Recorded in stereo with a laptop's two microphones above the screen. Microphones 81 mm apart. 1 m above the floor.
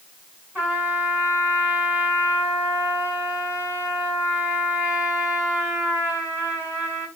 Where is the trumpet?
15° right (ahead or behind), 8.5 m.